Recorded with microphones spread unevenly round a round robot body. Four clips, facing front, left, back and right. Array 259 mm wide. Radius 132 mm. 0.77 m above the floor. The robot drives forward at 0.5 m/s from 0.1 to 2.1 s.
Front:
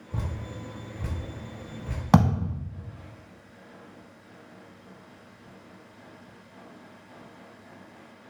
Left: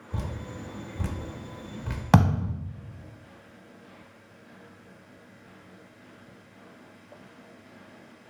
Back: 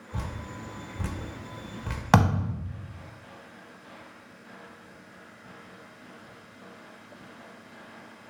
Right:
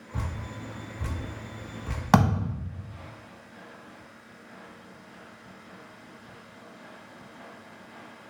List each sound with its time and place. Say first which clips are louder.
0.1 s dripping: left 1 dB, front 1 dB; 50° left, 0.5 m; by 2.0 s 155° left, 0.8 m
2.1 s a thud: right 1 dB, front 1 dB; 45° left, 0.6 m